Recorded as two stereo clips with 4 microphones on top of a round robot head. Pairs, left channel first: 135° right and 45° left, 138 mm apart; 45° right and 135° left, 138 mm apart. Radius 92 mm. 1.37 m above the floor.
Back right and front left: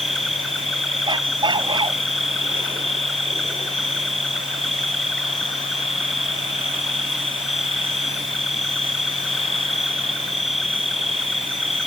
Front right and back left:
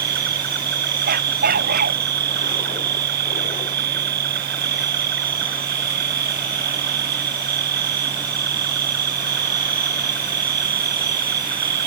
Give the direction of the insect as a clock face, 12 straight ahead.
7 o'clock.